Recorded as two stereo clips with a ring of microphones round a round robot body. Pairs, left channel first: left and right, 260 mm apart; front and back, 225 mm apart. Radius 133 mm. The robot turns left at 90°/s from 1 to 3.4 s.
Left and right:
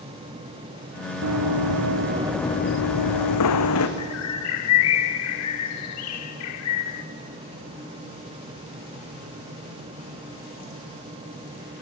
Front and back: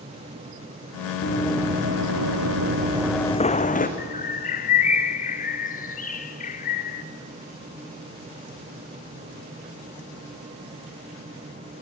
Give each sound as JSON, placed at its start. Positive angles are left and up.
{"t": 1.2, "sound": "running footsteps", "azimuth_deg": -50, "distance_m": 2.0}
{"t": 4.0, "sound": "a bird", "azimuth_deg": 60, "distance_m": 0.9}